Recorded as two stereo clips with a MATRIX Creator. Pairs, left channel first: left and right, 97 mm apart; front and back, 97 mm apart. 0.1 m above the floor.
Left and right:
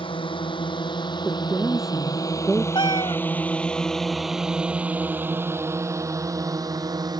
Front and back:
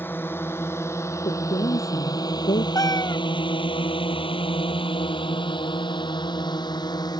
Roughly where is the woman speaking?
Ahead.